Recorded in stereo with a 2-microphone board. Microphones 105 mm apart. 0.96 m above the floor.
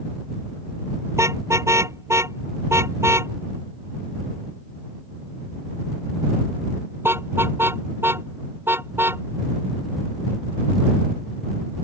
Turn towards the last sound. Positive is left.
turn(degrees=-20)  # may be behind; listen again after turning